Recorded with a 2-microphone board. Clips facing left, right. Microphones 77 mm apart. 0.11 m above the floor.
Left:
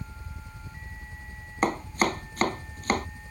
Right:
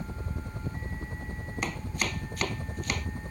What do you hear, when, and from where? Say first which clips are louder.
0.0 s a helicopter: right 6 dB; 50° right (ahead or behind)
1.6 s chopping: left 9 dB; 40° left (ahead or behind)